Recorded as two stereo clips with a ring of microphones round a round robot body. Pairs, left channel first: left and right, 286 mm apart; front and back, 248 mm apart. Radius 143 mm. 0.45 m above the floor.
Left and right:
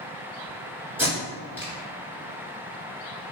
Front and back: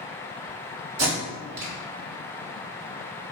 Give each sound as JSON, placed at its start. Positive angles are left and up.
{"t": 1.0, "sound": "tape being pulled", "azimuth_deg": -175, "distance_m": 1.2}